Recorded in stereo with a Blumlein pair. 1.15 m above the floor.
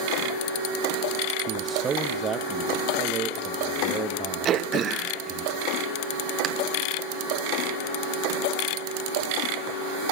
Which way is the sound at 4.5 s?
30° right.